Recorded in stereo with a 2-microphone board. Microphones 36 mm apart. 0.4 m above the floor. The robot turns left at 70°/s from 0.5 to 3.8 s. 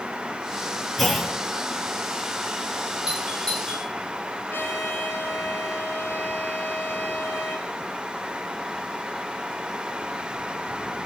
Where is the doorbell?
15° right (ahead or behind), 9 m; by 3.9 s 35° left (ahead or behind), 9 m.